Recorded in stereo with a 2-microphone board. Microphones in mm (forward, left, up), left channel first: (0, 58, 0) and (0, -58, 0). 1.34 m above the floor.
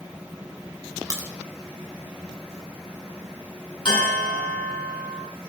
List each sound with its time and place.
1.1 s a crack: 25° right (ahead or behind), 4 m
3.9 s a bell: 45° left (ahead or behind), 7 m